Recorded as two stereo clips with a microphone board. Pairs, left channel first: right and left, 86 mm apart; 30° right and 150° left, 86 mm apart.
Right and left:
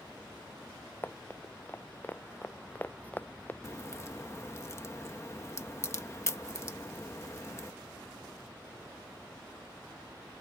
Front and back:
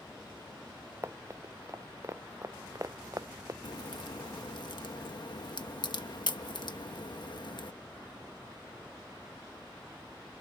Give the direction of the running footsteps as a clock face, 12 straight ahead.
5 o'clock.